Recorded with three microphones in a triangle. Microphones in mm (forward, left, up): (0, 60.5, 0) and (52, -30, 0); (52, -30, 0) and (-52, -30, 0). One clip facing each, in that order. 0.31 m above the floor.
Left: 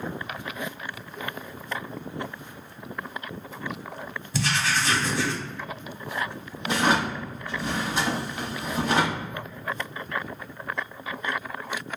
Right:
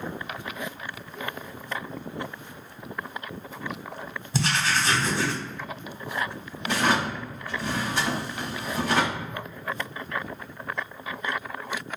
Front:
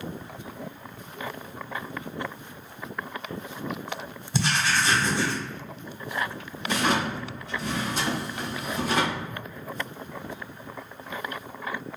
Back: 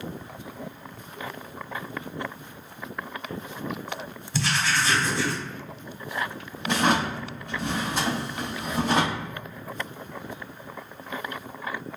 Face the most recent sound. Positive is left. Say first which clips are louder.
# left 1 dB, back 2 dB
turn(degrees=-175)